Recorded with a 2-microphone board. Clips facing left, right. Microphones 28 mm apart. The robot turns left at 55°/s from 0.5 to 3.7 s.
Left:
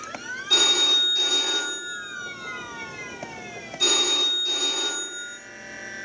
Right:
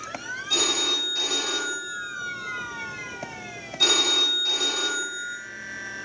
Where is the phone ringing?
25° left, 0.9 m; by 5.4 s 155° right, 0.9 m.